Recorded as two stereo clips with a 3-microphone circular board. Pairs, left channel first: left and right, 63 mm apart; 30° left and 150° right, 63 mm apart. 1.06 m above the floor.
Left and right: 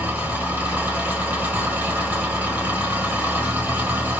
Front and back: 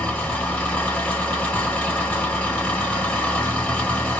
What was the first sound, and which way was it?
An engine running, 35° right.